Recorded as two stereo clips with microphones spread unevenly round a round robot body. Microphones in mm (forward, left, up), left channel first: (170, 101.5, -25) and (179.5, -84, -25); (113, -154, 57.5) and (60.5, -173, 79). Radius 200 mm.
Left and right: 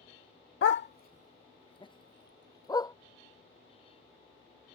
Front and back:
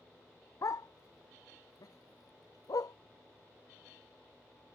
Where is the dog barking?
75° left; by 2.9 s 20° left.